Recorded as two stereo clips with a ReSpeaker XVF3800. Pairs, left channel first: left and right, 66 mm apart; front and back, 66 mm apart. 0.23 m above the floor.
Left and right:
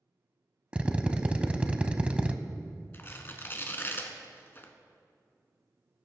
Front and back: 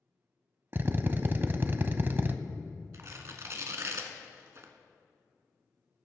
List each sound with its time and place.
0.7 s a drill: 150° right, 0.7 m
2.9 s tearing paper: 140° left, 1.2 m